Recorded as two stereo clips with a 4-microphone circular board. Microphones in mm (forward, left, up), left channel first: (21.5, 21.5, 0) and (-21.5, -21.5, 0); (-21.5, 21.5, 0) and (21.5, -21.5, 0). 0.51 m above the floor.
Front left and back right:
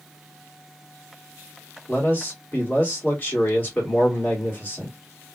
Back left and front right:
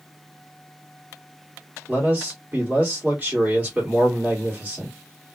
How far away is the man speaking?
About 1.7 m.